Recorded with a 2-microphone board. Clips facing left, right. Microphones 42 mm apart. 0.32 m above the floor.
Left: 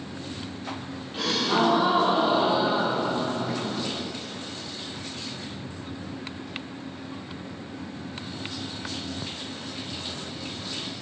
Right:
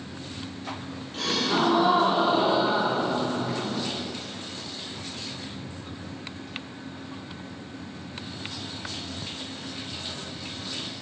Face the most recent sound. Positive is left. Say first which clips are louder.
# left 1 dB
turn(degrees=10)  # may be behind; listen again after turning